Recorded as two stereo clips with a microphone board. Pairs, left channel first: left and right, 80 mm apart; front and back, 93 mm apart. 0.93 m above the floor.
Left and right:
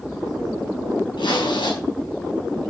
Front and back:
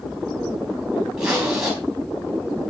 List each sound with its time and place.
1.2 s a zipper: 95° left, 4.5 m